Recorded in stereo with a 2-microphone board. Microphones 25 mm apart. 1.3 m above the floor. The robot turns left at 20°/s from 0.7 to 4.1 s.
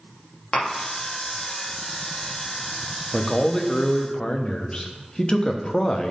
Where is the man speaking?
15° left (ahead or behind), 0.7 m; by 6.1 s 35° left (ahead or behind), 0.7 m.